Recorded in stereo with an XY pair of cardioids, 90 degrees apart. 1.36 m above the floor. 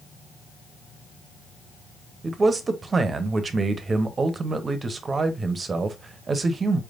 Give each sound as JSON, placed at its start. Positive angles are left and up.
{"t": 2.2, "sound": "a man speaking", "azimuth_deg": -40, "distance_m": 0.9}